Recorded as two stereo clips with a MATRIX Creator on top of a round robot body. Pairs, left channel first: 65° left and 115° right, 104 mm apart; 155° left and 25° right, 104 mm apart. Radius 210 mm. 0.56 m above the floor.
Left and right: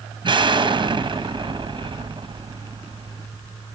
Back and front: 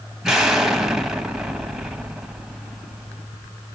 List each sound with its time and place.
0.2 s an explosion: 110° right, 1.3 m